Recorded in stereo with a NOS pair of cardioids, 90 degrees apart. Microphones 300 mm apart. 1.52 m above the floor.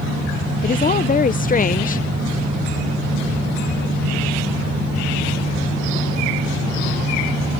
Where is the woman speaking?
25° left.